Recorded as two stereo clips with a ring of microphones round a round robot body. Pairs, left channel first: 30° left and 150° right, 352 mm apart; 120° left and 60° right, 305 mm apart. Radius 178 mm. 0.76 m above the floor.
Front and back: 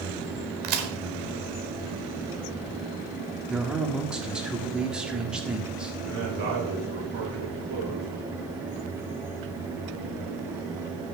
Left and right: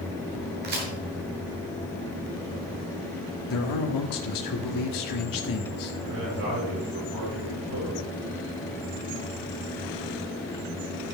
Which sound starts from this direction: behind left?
A man speaking, at 3.5 s.